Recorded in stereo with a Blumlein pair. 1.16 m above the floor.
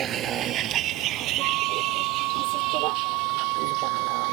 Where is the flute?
40° right.